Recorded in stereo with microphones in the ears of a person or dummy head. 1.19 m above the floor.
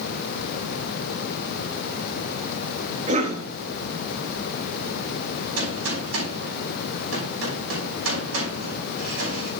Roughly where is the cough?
Right.